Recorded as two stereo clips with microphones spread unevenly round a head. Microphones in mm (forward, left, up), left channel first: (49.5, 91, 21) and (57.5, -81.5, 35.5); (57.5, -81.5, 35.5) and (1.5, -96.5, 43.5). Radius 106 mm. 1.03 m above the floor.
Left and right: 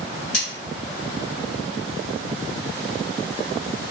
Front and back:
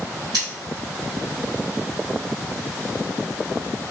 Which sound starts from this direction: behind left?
Cutlery clinking, at 0.3 s.